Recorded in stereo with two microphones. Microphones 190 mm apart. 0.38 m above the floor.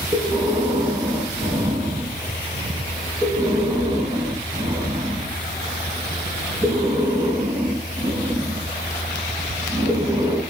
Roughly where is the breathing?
Right.